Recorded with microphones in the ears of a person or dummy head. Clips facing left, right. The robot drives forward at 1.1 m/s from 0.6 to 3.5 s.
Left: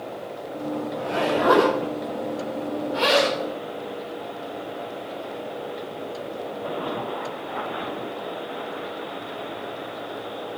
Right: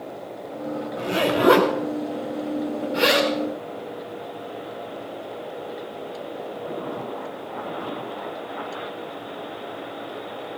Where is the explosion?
No explosion in this recording.